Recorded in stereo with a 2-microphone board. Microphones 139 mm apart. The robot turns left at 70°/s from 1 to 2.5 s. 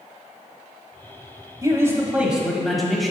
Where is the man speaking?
25° right (ahead or behind), 1.1 m; by 3.1 s centre (ahead or behind), 1.1 m.